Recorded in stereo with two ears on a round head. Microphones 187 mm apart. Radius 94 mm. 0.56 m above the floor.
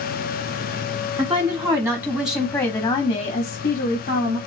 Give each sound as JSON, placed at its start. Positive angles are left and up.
{"t": 1.2, "sound": "a woman speaking", "side_deg": -25, "distance_m": 1.7}